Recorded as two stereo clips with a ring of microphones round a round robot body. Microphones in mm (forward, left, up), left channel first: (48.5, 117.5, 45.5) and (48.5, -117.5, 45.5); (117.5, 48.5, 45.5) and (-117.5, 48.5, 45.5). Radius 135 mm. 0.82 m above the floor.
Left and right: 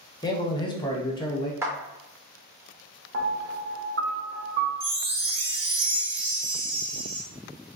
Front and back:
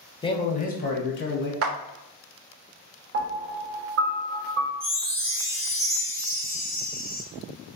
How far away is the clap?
About 0.5 m.